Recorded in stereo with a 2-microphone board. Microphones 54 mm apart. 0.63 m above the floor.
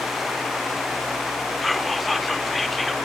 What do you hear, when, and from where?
1.6 s whispering: 5° left (ahead or behind), 1.6 m